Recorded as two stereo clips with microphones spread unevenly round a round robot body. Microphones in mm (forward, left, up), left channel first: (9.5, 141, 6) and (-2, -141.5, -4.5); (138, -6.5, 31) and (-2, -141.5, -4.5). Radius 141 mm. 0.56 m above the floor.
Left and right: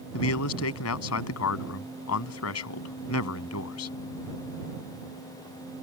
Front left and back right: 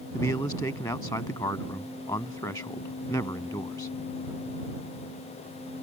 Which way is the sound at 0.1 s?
125° left.